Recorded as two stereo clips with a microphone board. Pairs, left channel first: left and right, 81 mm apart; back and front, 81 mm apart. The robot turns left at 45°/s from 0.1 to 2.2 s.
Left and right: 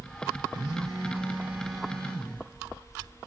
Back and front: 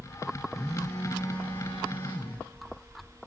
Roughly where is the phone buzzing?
Behind right.